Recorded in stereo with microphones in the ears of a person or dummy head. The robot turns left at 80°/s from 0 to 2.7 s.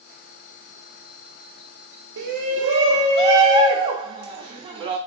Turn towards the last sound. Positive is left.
turn(degrees=-150)